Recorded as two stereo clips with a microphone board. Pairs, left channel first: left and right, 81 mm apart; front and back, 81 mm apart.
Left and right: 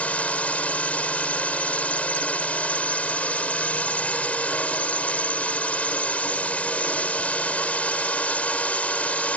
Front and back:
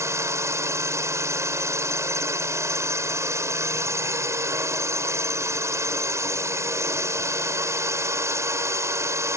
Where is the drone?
155° left.